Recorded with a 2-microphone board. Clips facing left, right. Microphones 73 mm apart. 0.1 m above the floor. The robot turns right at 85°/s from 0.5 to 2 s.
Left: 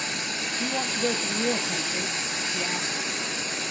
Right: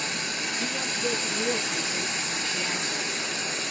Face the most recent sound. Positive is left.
turn(degrees=170)